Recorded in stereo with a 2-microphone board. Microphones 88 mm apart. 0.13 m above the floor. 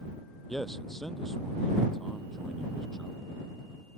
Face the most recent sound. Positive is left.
turn(degrees=5)  # may be behind; listen again after turning